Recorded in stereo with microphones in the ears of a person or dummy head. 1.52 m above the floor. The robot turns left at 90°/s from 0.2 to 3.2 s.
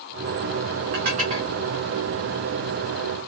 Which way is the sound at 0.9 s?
50° right (ahead or behind).